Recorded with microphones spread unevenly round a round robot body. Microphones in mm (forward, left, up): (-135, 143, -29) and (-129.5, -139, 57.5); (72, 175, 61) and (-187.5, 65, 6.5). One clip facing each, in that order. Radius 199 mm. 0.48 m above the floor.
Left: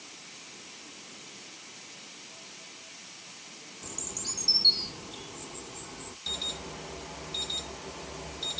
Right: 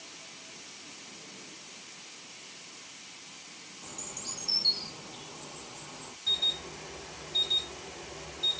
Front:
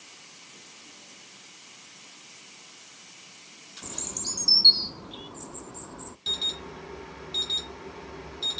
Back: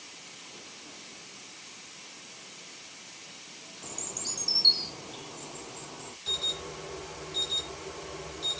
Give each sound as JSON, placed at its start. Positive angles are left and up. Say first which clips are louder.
{"t": 3.8, "sound": "a bird", "louder": "left 3 dB, front 3 dB", "azimuth_deg": 90, "distance_m": 0.5}
{"t": 6.3, "sound": "an alarm", "louder": "left 3 dB, back 2 dB", "azimuth_deg": 70, "distance_m": 1.2}